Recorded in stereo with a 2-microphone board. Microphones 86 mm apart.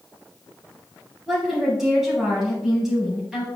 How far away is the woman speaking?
About 3.5 m.